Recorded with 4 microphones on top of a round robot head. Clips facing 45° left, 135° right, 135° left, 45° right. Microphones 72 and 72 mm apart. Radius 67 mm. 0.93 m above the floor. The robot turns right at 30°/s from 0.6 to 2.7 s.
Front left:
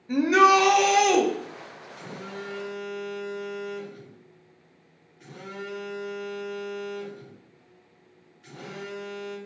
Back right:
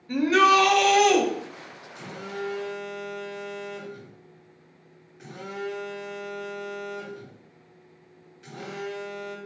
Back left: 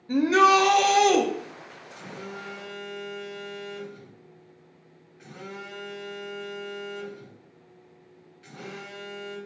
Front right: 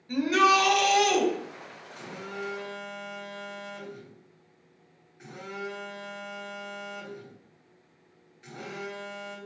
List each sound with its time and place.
0.1 s a shout: 110° left, 0.8 m; by 1.2 s 130° left, 0.8 m
1.9 s a phone buzzing: 135° right, 1.0 m; by 9.4 s 110° right, 1.0 m